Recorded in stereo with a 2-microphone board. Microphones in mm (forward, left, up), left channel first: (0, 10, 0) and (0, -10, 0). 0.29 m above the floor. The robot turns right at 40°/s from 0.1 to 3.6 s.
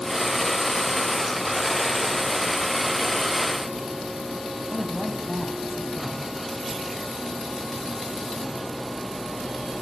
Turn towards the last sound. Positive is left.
turn(degrees=5)  # may be behind; listen again after turning